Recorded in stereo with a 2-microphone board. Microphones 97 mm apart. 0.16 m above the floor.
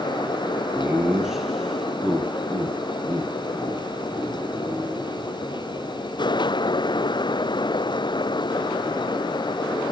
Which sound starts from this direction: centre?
Laughter, at 0.7 s.